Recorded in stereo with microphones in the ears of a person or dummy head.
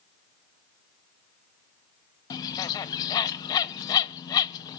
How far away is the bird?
About 0.8 m.